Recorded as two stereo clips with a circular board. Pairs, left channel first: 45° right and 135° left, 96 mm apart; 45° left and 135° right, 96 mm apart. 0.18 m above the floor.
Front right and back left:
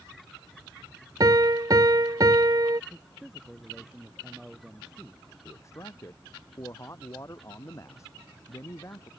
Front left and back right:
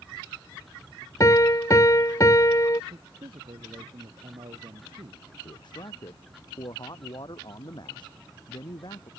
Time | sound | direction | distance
1.2 | a piano | 95° left | ?
2.9 | a man speaking | 140° right | ?
5.5 | a man speaking | 10° left | ?